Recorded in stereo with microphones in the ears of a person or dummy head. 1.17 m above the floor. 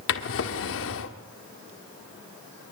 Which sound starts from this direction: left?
A drawer, at 0.1 s.